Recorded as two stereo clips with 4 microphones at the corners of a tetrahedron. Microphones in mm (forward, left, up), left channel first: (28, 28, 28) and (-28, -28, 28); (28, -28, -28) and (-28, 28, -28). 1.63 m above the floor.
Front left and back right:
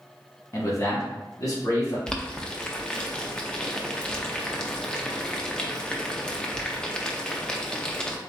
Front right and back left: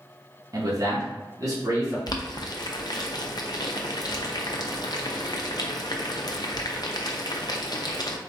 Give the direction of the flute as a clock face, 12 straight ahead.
No flute in this recording.